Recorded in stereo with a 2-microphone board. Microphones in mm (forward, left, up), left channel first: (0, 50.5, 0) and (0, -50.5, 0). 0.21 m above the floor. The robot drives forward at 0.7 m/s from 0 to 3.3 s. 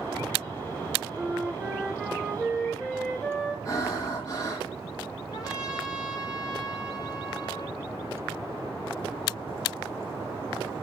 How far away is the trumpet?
About 7 m.